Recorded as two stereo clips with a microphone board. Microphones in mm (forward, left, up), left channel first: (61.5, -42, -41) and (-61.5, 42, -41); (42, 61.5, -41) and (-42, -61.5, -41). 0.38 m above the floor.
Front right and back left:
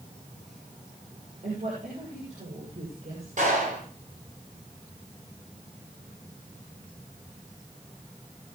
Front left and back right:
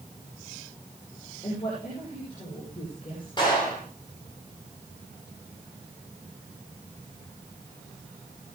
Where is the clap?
115° left, 7.5 m.